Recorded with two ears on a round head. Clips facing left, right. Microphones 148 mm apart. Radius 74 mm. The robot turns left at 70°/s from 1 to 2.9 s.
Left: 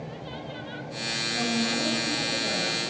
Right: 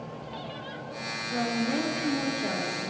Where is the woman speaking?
45° right, 1.2 m; by 2.9 s 155° right, 1.2 m.